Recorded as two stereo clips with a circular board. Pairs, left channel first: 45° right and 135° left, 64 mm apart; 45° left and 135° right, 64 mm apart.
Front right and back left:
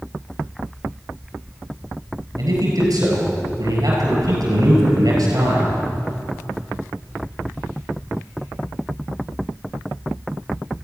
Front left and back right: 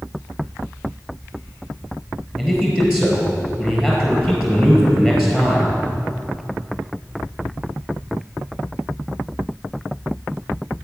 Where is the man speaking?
140° left, 4.5 m.